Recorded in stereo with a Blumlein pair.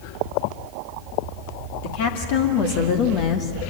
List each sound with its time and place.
1.8 s a woman speaking: 50° left, 2.5 m; by 3.5 s 30° left, 1.3 m